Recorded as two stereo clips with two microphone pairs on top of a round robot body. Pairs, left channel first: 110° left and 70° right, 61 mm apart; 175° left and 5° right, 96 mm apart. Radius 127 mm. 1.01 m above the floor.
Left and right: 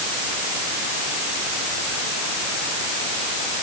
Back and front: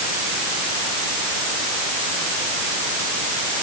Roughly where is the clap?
I don't hear a clap.